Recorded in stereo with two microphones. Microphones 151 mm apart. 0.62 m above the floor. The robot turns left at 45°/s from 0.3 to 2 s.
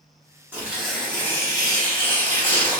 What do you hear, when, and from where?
0.5 s tearing paper: 165° right, 1.3 m; by 2.8 s 130° left, 1.3 m